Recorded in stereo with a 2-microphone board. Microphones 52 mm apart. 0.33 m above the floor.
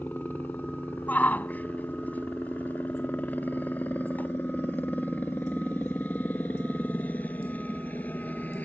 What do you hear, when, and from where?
0.0 s a helicopter: 35° left (ahead or behind)
1.1 s a shout: 35° left (ahead or behind)